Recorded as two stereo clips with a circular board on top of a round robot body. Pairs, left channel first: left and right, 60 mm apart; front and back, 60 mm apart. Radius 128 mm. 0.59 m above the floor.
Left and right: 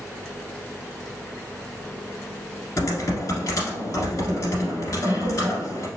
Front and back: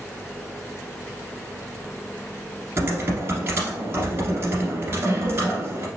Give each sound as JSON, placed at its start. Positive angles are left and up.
{"t": 2.8, "sound": "typing on a keyboard", "azimuth_deg": 130, "distance_m": 1.5}